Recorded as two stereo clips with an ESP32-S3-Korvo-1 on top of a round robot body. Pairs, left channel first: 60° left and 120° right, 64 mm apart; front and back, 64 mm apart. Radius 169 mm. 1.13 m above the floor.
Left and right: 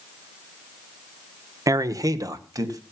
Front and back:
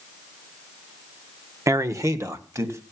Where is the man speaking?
145° right, 1.2 m.